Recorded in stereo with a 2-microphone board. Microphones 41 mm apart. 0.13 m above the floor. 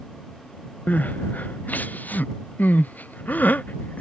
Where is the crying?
45° left (ahead or behind).